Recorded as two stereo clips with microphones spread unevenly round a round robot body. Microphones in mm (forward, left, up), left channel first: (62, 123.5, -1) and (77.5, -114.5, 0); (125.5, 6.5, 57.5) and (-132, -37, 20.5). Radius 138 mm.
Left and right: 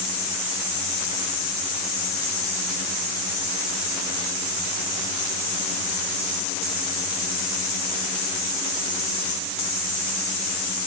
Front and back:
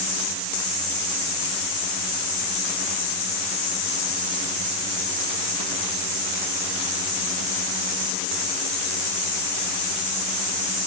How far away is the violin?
I don't hear a violin.